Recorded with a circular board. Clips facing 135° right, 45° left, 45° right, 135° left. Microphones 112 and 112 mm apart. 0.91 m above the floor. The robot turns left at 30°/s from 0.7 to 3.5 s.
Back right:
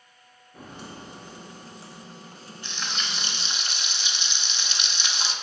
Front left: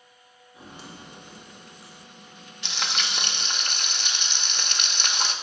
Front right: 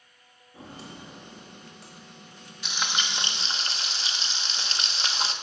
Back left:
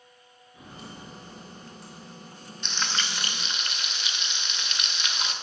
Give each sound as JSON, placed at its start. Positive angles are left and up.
{"t": 0.5, "sound": "footsteps", "azimuth_deg": -100, "distance_m": 1.6}
{"t": 2.6, "sound": "frying", "azimuth_deg": 40, "distance_m": 1.1}